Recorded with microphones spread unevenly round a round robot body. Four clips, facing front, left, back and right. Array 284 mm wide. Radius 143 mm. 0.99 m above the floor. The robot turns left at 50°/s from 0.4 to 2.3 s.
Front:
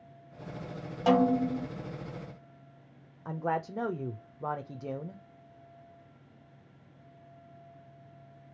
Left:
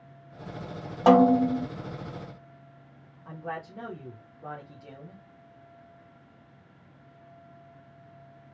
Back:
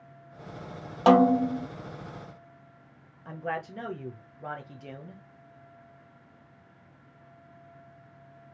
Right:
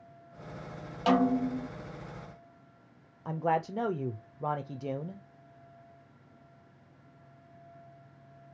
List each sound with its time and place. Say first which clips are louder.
1.1 s a snare drum: left 8 dB, back 5 dB; 145° left, 0.7 m; by 1.7 s 110° left, 0.7 m
3.2 s a man speaking: right 8 dB, front 2 dB; 60° right, 0.6 m